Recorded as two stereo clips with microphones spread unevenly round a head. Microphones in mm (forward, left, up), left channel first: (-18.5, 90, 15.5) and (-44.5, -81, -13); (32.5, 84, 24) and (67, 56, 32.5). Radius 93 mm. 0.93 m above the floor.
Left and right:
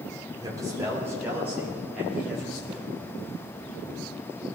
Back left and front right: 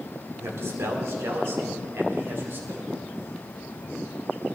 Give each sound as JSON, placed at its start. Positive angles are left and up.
{"t": 0.4, "sound": "a man speaking", "azimuth_deg": -30, "distance_m": 2.5}
{"t": 2.7, "sound": "a snare drum", "azimuth_deg": -45, "distance_m": 4.5}